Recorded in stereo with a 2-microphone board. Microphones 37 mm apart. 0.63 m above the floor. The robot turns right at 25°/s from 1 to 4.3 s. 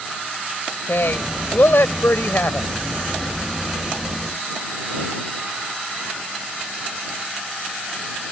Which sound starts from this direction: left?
A woman speaking, at 0.9 s.